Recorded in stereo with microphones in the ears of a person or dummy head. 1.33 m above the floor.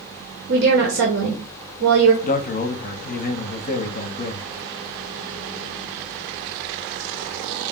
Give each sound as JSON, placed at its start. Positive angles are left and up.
{"t": 0.5, "sound": "a woman speaking", "side_deg": -60, "distance_m": 1.0}
{"t": 2.2, "sound": "a man speaking", "side_deg": 40, "distance_m": 0.6}